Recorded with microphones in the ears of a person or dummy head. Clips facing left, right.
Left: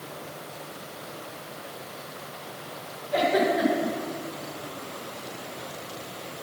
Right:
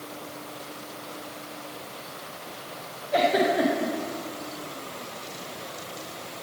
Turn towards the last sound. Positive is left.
turn(degrees=-30)  # may be behind; listen again after turning